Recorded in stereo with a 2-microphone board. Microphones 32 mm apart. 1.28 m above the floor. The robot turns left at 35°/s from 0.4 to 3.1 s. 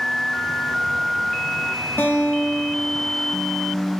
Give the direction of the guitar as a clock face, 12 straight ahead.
9 o'clock.